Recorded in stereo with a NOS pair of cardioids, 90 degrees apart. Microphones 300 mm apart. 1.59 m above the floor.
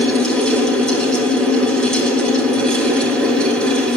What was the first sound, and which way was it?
A fan, straight ahead.